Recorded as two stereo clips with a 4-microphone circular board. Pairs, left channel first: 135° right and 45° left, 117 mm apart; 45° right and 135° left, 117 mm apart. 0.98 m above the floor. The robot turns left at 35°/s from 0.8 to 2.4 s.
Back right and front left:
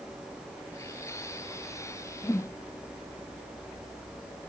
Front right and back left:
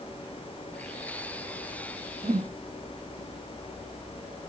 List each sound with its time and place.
2.2 s a whoosh: 160° left, 0.5 m; by 2.6 s 155° left, 0.5 m